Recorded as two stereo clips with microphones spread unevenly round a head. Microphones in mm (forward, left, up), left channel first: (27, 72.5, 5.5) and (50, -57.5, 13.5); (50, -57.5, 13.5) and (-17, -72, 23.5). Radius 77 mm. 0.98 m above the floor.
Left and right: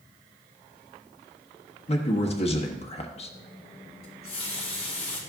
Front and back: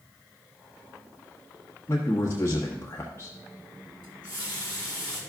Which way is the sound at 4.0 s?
160° left.